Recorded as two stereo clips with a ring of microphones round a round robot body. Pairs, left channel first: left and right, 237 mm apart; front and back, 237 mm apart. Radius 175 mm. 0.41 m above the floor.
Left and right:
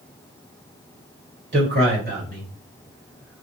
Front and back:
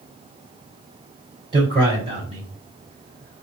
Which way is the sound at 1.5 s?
110° right.